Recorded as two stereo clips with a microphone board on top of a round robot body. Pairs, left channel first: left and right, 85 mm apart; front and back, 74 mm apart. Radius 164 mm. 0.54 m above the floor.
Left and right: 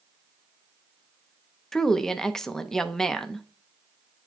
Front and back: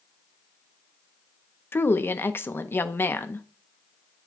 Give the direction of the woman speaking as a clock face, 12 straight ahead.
12 o'clock.